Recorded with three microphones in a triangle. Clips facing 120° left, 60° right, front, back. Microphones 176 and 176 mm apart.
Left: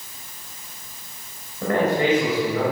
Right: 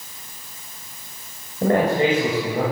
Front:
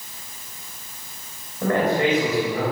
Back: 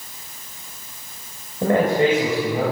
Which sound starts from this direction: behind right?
A man speaking, at 1.6 s.